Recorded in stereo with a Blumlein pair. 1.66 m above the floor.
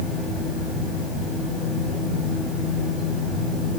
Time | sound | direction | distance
0.0 | a fan | 15° left | 8.5 m